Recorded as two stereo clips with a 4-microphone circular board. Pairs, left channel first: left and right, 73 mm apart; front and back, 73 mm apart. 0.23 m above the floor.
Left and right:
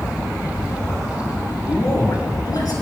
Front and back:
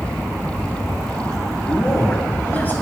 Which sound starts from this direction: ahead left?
A man speaking, at 1.6 s.